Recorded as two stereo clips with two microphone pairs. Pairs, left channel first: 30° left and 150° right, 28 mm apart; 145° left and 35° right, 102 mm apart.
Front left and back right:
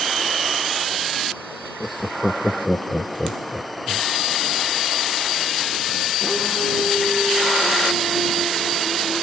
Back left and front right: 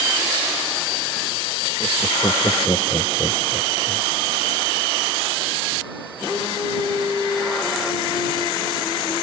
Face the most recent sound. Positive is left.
turn(degrees=90)